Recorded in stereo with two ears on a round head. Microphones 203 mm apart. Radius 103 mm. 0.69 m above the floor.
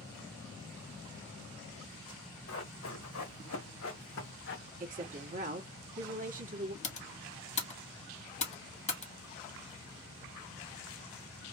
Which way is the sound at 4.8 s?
35° right (ahead or behind).